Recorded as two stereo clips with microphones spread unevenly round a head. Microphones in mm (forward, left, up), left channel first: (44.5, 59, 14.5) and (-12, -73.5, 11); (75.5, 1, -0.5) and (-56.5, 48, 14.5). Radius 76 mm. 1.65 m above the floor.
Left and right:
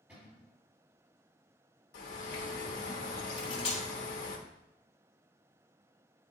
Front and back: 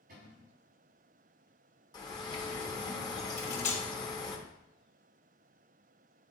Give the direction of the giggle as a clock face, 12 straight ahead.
I don't hear a giggle.